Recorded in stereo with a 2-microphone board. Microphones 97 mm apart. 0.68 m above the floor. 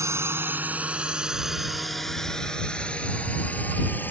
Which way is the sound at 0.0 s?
30° right (ahead or behind).